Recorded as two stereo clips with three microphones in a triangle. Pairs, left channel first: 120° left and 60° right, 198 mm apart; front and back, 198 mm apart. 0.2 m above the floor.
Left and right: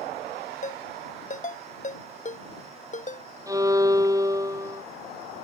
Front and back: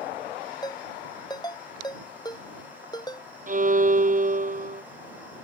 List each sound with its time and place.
0.6 s a ringtone: 70° left
3.5 s a violin: 130° right